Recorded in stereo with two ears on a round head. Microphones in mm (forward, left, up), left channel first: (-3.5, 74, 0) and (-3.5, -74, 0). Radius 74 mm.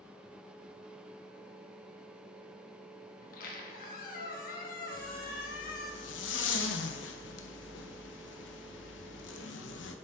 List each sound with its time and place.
3.2 s a squeak: 55° left (ahead or behind), 1.1 m
4.9 s a zipper: 85° left, 0.7 m